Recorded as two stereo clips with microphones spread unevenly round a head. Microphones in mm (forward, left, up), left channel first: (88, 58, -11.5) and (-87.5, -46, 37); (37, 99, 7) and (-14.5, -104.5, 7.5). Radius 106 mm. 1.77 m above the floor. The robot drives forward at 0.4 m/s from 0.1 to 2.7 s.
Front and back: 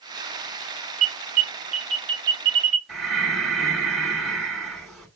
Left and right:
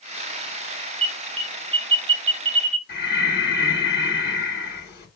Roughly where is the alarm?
Behind.